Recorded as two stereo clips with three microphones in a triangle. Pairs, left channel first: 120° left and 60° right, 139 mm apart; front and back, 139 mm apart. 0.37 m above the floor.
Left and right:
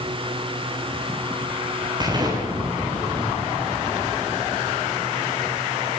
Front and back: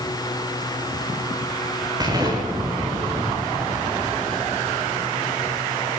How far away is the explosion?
About 7.5 m.